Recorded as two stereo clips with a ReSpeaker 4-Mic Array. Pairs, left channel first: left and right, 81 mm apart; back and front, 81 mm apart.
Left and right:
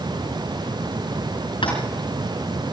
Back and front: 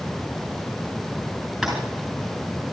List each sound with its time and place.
1.6 s tapping: 90° left, 5.5 m